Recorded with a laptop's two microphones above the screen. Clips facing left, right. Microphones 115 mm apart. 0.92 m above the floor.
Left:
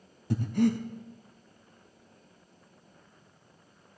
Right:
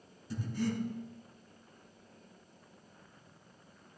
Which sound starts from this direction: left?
Breathing, at 0.3 s.